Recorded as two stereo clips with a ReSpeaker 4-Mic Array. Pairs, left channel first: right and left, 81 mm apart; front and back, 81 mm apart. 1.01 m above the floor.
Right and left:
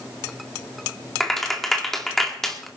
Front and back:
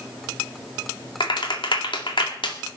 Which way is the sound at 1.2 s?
5° right.